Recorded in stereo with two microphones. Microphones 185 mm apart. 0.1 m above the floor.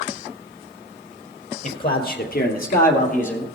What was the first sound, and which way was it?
A man speaking, 50° left (ahead or behind).